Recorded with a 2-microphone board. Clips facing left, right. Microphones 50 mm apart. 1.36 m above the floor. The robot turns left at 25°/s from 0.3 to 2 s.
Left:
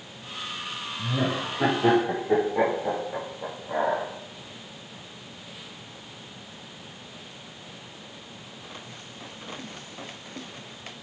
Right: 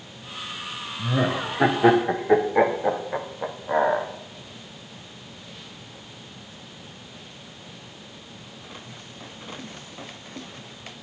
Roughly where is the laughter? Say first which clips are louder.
Right 3 dB; right.